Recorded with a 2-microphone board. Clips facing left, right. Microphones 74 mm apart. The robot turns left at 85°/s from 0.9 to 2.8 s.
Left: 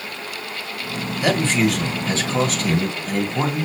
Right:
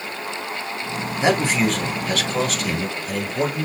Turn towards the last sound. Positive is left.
turn(degrees=80)